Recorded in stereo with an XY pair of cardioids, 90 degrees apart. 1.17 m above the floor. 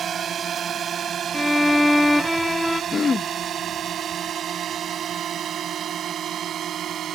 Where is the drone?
60° right; by 7.2 s 70° right.